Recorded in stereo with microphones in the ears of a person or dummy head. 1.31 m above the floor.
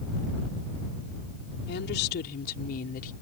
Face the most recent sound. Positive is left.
turn(degrees=45)  # may be behind; listen again after turning